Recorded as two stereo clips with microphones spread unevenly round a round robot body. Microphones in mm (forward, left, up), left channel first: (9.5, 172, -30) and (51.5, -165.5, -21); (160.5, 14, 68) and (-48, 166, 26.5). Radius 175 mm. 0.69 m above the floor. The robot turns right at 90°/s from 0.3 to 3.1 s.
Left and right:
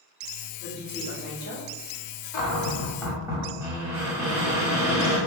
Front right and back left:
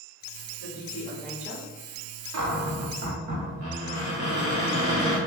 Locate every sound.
0.6 s a woman speaking: 5° right, 1.2 m; by 1.7 s 90° left, 1.2 m
2.3 s a cupboard door: 125° left, 0.8 m; by 5.2 s 165° right, 0.8 m